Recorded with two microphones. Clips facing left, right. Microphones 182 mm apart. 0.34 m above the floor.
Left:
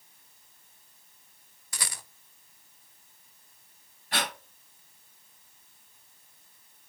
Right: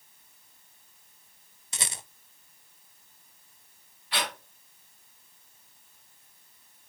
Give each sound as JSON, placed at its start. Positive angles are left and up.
{"t": 1.7, "sound": "a rattle", "side_deg": -25, "distance_m": 0.5}
{"t": 4.1, "sound": "breathing", "side_deg": 45, "distance_m": 2.5}